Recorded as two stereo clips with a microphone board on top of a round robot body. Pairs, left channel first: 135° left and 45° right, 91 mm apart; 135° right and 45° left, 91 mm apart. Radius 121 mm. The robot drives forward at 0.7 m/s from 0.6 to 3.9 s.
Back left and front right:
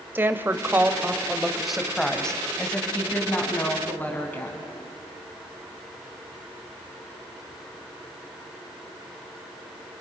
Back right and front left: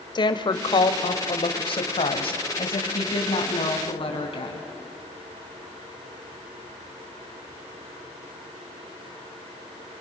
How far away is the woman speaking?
About 1.6 m.